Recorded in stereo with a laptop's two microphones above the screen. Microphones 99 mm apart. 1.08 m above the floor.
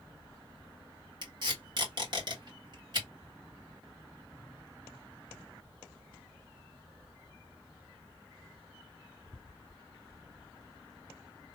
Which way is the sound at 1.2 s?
45° right (ahead or behind).